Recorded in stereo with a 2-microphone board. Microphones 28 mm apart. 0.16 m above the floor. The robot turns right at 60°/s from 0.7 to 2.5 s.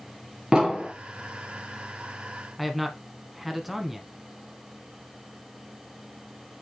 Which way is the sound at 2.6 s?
5° right (ahead or behind).